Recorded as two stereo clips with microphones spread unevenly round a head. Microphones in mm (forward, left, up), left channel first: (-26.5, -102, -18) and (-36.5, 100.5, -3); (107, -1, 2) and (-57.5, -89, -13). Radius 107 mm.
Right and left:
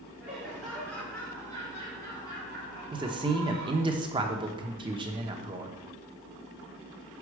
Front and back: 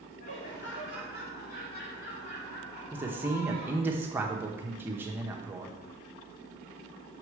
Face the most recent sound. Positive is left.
turn(degrees=145)